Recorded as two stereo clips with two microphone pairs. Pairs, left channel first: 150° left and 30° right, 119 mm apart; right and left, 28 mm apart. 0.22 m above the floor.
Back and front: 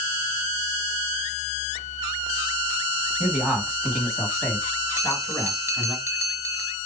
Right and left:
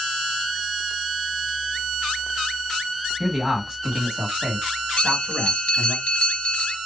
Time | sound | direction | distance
3.2 | a man speaking | 25° left | 1.6 m
5.0 | a bell | 80° right | 1.1 m